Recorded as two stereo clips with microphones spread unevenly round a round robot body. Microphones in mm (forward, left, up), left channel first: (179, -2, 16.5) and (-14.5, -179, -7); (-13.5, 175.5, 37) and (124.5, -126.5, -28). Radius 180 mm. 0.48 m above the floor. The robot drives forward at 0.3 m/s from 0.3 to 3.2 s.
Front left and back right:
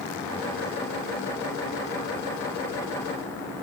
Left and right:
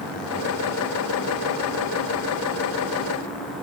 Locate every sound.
Only background noise.